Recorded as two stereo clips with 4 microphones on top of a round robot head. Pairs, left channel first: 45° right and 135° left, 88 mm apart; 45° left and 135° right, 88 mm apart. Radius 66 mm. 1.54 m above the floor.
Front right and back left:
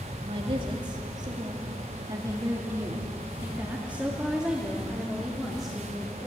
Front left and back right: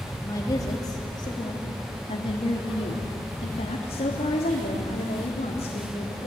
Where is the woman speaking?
105° left, 2.5 m; by 6.3 s 40° left, 3.5 m.